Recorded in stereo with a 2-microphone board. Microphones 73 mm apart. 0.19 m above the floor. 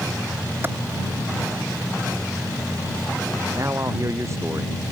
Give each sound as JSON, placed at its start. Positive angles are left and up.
{"t": 0.6, "sound": "a clap", "side_deg": -30}
{"t": 3.5, "sound": "a man speaking", "side_deg": -40}